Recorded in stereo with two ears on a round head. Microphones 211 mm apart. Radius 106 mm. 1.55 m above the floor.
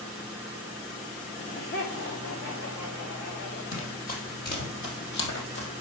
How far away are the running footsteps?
About 2.5 m.